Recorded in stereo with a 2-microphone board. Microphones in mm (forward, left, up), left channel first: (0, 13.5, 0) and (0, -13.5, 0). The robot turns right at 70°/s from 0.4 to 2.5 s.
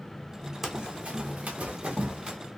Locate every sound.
0.6 s running footsteps: 15° right (ahead or behind), 0.7 m; by 2.4 s 25° right (ahead or behind), 1.8 m